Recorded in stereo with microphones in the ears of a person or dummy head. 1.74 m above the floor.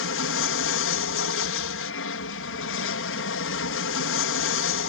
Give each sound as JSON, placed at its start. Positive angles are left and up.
{"t": 0.0, "sound": "an aircraft", "side_deg": 65}